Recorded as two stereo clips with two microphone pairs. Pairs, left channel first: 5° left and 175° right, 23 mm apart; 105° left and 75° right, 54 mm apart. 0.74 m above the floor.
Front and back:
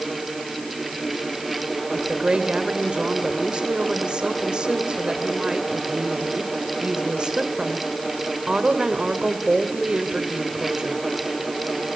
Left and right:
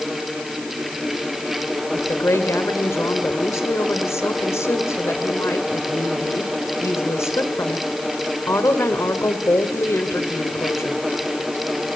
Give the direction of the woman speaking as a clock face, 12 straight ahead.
7 o'clock.